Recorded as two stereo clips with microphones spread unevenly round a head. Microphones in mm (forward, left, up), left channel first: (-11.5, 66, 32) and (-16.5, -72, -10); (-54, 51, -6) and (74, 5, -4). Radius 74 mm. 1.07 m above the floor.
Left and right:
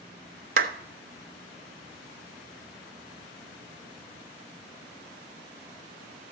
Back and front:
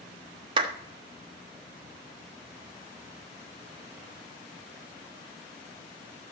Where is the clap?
80° right, 1.0 m.